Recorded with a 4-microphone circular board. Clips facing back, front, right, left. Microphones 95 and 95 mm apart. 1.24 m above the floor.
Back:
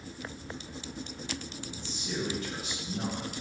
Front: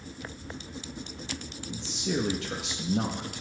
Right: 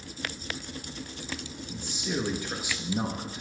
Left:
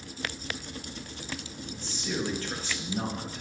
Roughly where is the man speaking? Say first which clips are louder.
Front 8 dB, right 2 dB; ahead.